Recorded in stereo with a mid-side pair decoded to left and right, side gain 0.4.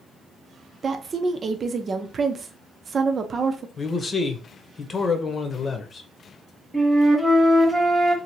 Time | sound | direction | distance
0.8 | a woman speaking | 45° right | 0.7 m
3.8 | a man speaking | 45° left | 0.9 m
6.7 | a flute | 15° right | 1.1 m